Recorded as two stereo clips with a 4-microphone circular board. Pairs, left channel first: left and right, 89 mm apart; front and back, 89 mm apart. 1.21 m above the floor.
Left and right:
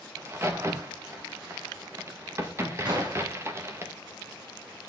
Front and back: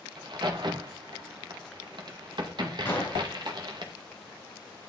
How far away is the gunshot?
About 6 m.